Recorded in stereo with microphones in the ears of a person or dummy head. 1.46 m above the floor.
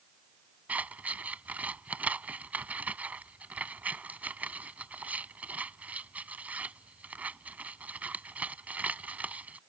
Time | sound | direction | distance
0.7 | scissors | 10° right (ahead or behind) | ?